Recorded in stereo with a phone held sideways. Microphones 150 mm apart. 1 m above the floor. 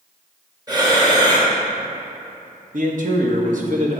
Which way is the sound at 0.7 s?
25° right (ahead or behind).